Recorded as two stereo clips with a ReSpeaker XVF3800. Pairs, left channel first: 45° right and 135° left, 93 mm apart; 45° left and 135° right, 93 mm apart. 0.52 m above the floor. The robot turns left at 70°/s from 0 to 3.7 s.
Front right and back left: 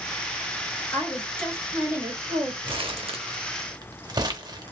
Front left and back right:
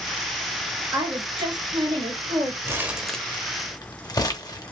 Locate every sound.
0.9 s a woman speaking: 90° right, 2.5 m; by 2.5 s 160° left, 2.5 m
2.6 s crumpling: 165° left, 0.7 m; by 4.7 s 90° left, 0.7 m